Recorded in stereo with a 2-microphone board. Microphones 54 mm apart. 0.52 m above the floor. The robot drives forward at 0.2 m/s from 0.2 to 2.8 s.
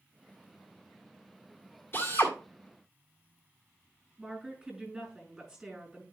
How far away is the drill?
About 1.8 m.